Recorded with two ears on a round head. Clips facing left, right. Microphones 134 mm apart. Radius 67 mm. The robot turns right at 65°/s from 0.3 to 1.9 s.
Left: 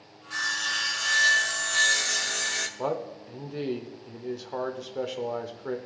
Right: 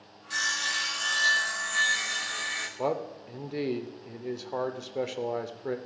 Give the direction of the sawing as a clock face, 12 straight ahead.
1 o'clock.